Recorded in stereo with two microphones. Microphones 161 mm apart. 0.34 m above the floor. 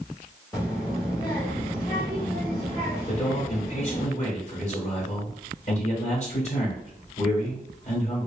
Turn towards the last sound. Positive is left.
turn(degrees=45)  # may be behind; listen again after turning